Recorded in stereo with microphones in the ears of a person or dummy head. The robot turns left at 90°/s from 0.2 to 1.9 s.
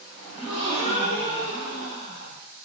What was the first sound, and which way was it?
A gasp, 170° right.